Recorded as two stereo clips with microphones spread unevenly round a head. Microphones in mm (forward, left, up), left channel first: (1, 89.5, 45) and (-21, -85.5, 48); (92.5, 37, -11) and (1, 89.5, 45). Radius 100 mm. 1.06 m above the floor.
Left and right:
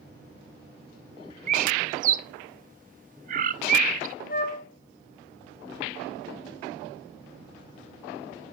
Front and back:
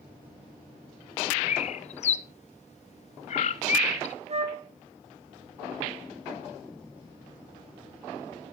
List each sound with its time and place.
1.5 s a bird: 50° right, 1.0 m
4.3 s a flute: 125° left, 2 m